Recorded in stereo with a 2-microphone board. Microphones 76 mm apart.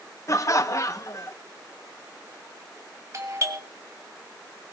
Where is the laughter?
45° left (ahead or behind), 0.7 m.